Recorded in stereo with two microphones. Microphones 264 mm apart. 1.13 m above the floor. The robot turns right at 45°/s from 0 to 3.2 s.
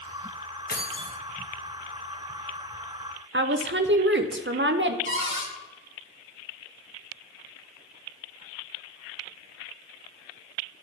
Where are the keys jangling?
40° left (ahead or behind), 0.8 m; by 1.2 s 15° left (ahead or behind), 0.8 m.